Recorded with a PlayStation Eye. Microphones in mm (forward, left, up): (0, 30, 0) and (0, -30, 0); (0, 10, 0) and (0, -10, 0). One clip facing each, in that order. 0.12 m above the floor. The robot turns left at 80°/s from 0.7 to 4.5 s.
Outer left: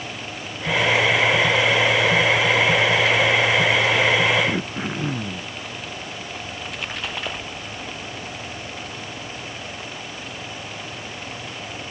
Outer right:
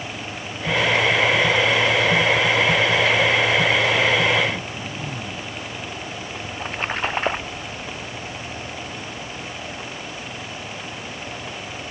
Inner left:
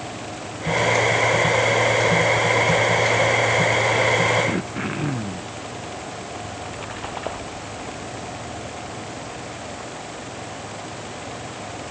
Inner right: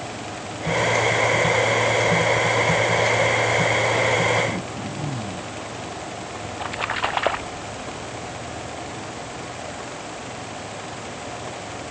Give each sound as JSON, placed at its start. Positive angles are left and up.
{"t": 4.5, "sound": "throat clearing", "side_deg": 60}
{"t": 6.5, "sound": "a splash", "side_deg": -35}